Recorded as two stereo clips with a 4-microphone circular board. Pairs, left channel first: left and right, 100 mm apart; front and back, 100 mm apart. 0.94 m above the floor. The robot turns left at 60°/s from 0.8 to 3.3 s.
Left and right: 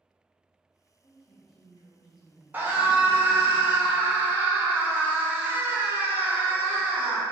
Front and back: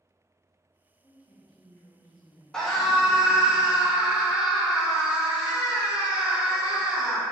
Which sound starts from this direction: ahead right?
A scream, at 2.5 s.